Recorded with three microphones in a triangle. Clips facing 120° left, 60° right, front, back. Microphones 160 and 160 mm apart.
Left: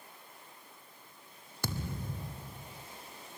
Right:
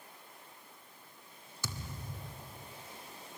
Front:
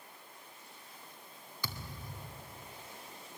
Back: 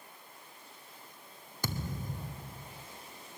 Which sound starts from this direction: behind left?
A thud, at 1.6 s.